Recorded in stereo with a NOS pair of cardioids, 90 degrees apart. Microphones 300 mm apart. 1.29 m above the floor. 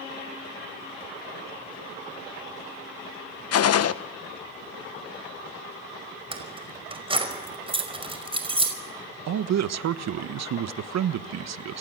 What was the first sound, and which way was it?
A gunshot, 55° left.